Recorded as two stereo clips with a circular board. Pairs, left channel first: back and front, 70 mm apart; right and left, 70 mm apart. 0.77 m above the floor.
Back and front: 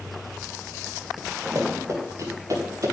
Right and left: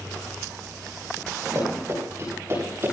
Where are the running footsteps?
45° left, 9 m; by 2.9 s 40° left, 9.5 m.